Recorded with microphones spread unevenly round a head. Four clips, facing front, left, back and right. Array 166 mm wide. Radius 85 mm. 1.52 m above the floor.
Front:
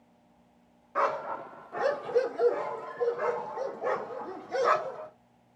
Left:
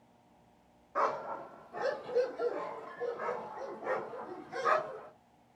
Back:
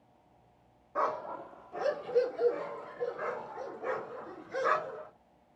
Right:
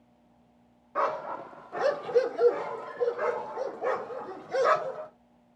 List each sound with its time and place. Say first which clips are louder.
0.9 s a dog barking: right 3 dB, front 4 dB; 90° right, 1.0 m; by 5.1 s 80° right, 3.5 m